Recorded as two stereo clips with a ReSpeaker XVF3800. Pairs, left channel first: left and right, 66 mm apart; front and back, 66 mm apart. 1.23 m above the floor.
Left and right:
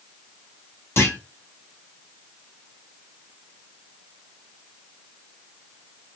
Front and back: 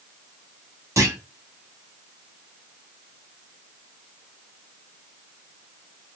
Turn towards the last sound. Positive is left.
turn(degrees=140)